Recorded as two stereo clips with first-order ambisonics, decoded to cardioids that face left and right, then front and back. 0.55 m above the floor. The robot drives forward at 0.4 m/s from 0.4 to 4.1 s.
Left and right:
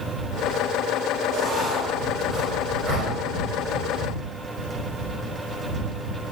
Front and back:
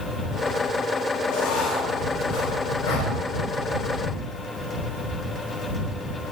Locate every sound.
1.3 s writing: 10° right, 4 m; by 3.1 s 15° right, 3.5 m